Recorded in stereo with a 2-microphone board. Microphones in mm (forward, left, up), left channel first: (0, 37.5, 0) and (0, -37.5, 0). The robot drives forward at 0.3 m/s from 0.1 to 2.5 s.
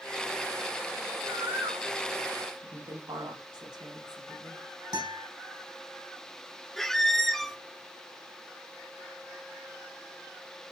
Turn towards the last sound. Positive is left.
turn(degrees=5)  # may be behind; listen again after turning